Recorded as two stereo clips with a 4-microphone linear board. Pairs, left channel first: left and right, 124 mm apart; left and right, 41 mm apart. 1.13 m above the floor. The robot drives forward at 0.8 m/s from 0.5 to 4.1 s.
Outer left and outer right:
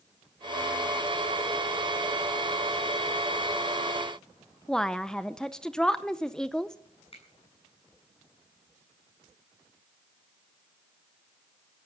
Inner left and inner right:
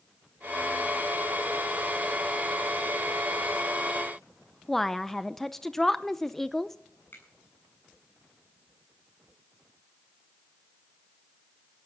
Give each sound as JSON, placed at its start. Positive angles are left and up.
{"t": 4.7, "sound": "a woman speaking", "side_deg": 5, "distance_m": 0.6}
{"t": 7.1, "sound": "a finger snap", "side_deg": 50, "distance_m": 8.0}